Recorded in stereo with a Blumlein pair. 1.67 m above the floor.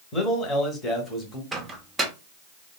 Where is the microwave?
10° right, 0.7 m.